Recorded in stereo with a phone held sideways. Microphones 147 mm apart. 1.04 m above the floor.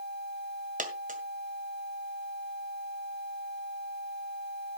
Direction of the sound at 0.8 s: 65° right (ahead or behind).